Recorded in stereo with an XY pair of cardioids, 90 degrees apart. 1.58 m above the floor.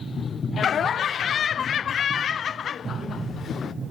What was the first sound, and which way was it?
Laughter, 60° left.